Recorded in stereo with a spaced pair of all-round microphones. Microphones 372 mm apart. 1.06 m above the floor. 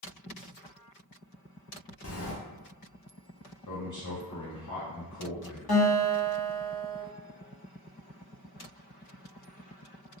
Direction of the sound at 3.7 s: 50° left (ahead or behind).